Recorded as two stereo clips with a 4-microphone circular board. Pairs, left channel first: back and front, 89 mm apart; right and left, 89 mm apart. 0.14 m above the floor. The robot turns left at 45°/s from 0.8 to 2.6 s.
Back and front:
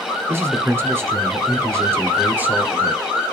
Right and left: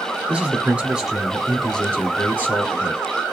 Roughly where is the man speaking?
Ahead left.